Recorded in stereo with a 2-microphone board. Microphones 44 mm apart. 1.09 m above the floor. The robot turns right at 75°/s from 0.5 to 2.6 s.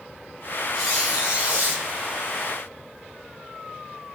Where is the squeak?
165° left, 1.9 m; by 1.8 s 115° right, 1.9 m.